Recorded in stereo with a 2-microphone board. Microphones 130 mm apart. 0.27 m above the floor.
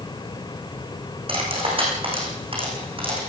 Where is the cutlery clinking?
45° right (ahead or behind), 9.5 m.